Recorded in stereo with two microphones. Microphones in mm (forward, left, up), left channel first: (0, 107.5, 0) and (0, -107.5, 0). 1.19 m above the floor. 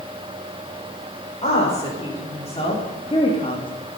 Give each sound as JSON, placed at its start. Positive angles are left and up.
{"t": 1.4, "sound": "a woman speaking", "side_deg": 30, "distance_m": 5.5}